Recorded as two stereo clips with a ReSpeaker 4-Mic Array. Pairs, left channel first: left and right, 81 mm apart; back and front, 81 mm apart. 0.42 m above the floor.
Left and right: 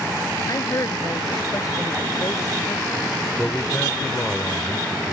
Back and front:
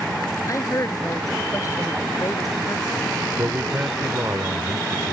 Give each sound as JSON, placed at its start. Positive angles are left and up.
{"t": 0.5, "sound": "a woman speaking", "azimuth_deg": 135}
{"t": 3.4, "sound": "a man speaking", "azimuth_deg": 35}